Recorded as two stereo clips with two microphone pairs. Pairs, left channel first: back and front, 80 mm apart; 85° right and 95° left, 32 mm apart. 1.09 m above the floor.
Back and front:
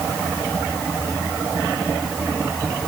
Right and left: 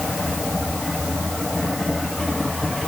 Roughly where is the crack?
I don't hear a crack.